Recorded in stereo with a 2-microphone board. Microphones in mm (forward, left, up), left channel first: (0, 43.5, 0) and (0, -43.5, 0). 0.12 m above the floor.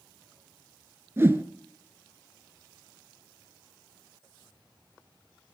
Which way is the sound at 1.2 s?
30° right (ahead or behind).